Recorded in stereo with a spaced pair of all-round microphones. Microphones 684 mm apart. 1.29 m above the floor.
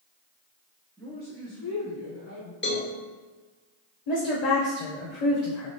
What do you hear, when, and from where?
1.0 s a man speaking: 5° left (ahead or behind), 0.5 m; by 2.5 s 45° left (ahead or behind), 1.2 m
2.6 s a cowbell: 20° left (ahead or behind), 0.6 m
4.1 s a woman speaking: 70° left (ahead or behind), 0.8 m